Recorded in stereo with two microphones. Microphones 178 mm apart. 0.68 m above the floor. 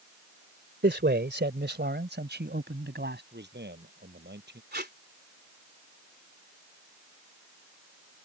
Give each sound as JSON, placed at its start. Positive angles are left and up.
{"t": 0.8, "sound": "a man speaking", "side_deg": -75}
{"t": 3.3, "sound": "a man speaking", "side_deg": -70}
{"t": 4.7, "sound": "tape being pulled", "side_deg": -65}